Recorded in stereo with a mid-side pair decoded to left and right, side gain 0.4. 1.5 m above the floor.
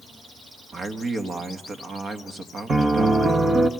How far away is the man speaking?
About 2.5 m.